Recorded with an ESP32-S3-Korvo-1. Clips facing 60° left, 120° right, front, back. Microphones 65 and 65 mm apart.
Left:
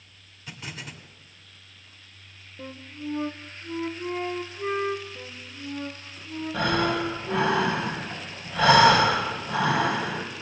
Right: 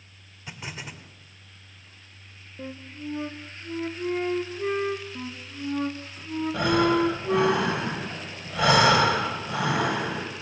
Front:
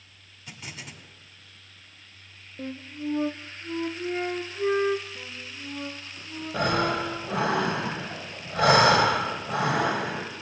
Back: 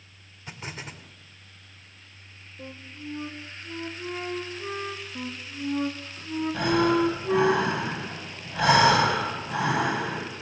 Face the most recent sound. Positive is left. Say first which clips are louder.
# right 3 dB, back 2 dB
turn(degrees=-45)